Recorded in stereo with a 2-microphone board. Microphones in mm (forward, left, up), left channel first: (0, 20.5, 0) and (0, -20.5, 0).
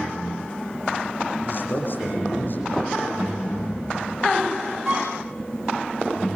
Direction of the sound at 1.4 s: 50° left (ahead or behind).